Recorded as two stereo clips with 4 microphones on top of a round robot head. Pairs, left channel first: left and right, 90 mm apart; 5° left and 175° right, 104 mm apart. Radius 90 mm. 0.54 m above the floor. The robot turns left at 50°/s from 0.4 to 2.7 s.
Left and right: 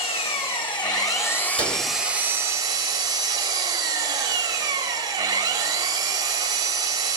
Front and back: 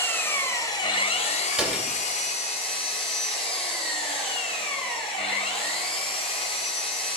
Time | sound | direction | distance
0.0 | an engine running | 75° left | 1.0 m
1.5 | a door slam | 105° left | 2.5 m